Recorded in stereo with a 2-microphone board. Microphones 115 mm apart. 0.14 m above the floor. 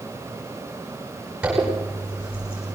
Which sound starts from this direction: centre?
A zipper, at 1.4 s.